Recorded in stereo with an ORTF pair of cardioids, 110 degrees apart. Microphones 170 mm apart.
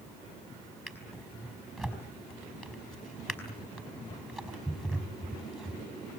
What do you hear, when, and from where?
0.9 s a drawer: 5° left, 5 m